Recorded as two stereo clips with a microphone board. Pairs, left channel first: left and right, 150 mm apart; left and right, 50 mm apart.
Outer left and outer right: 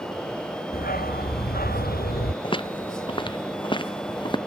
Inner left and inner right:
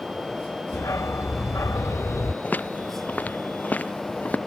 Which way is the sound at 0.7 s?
85° left.